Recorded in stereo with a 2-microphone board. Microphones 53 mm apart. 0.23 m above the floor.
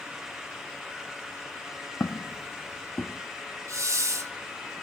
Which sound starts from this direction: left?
Footsteps, at 2.0 s.